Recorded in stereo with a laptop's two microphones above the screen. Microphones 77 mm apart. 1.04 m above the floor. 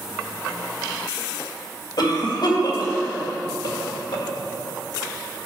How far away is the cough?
About 1.8 m.